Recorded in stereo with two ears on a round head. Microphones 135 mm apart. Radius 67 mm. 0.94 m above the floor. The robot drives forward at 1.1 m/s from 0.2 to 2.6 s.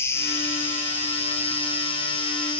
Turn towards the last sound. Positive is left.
turn(degrees=10)  # may be behind; listen again after turning